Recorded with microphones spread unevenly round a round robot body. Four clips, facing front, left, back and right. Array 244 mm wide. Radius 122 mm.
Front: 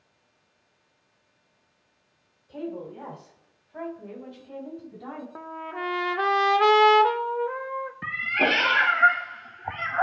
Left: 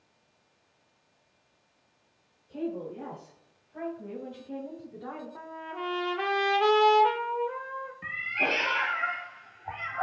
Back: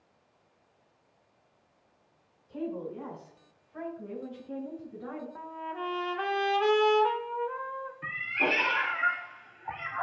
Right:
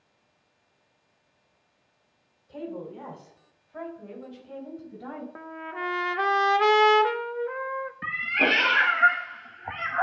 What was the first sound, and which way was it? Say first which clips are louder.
A woman speaking: left 2 dB, front 1 dB; 35° right.